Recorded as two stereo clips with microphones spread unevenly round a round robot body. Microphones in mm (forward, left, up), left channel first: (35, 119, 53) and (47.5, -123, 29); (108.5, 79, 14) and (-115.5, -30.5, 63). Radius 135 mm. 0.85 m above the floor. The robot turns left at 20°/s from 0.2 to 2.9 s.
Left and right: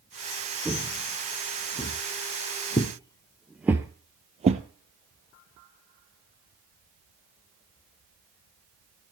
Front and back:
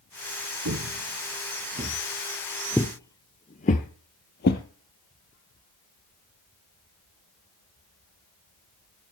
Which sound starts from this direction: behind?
Footsteps, at 0.7 s.